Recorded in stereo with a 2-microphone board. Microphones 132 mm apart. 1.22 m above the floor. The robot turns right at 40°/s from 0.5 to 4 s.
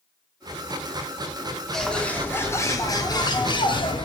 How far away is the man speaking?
No man speaking in this recording.